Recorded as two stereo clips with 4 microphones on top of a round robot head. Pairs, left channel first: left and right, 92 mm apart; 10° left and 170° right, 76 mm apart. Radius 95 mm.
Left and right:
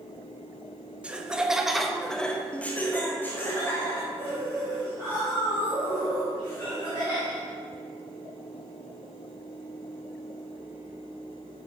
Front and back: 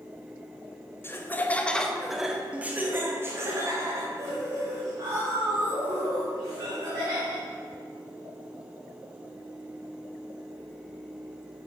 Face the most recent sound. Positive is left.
turn(degrees=155)